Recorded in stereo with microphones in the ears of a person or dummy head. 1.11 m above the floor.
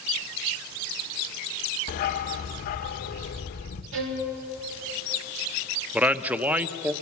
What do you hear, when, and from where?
1.9 s a dog barking: 50° left (ahead or behind), 1.5 m
3.9 s a violin: 80° right, 2 m
5.9 s a man speaking: 5° right (ahead or behind), 0.8 m